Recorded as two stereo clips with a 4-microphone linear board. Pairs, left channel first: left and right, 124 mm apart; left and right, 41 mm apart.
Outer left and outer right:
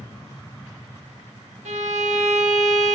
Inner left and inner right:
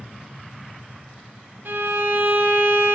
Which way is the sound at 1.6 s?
70° right (ahead or behind).